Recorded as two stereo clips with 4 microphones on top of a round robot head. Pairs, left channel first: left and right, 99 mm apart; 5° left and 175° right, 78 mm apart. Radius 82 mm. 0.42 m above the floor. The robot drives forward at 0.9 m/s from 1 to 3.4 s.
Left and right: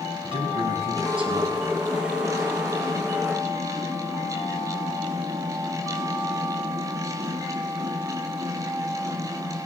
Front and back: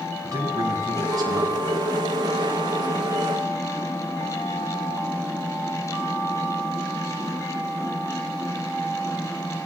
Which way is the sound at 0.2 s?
125° right.